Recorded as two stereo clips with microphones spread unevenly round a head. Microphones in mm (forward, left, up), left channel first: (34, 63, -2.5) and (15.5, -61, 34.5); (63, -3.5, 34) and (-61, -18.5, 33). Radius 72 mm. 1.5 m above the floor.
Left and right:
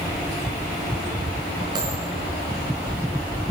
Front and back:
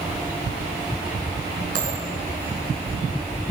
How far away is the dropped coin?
About 5 m.